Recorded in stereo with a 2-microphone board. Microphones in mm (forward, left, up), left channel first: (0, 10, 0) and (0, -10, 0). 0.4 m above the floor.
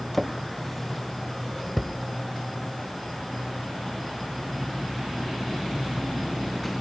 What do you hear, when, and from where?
0.1 s a drawer: 10° left (ahead or behind), 1.0 m